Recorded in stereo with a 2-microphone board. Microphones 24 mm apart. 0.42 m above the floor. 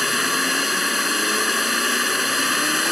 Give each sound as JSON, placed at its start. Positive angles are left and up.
{"t": 0.0, "sound": "a drone", "side_deg": 0}